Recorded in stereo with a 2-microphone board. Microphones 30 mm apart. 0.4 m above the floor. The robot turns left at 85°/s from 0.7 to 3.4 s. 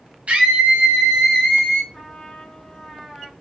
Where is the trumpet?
20° left (ahead or behind), 1.2 m; by 3.3 s centre (ahead or behind), 1.2 m.